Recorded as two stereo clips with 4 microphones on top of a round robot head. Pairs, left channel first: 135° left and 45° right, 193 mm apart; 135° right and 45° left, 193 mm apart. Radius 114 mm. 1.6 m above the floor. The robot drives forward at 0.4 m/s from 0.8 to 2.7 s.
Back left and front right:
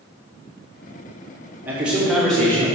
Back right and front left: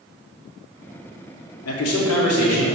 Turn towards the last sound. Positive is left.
turn(degrees=-145)